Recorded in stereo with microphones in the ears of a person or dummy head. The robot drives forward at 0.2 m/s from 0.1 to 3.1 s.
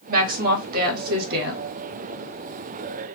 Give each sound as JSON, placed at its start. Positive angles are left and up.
{"t": 0.1, "sound": "a woman speaking", "side_deg": -45, "distance_m": 1.8}